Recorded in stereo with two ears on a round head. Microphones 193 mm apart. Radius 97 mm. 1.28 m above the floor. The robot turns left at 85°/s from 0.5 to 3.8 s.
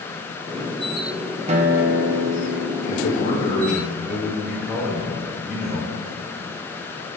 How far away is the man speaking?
About 2.5 m.